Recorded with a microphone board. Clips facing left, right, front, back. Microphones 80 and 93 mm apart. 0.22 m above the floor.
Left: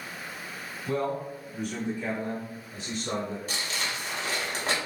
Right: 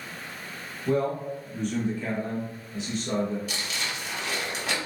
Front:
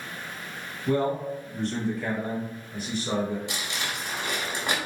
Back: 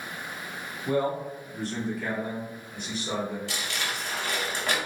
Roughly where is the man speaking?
Behind right.